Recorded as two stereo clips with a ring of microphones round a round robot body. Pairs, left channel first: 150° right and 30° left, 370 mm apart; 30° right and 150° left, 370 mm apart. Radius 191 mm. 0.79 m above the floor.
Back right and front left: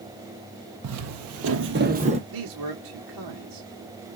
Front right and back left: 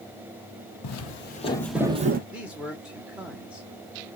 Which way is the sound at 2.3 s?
65° left.